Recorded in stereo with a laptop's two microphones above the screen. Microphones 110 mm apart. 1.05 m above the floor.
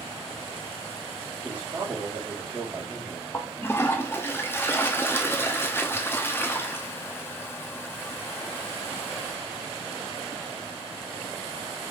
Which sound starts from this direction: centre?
A man speaking, at 1.4 s.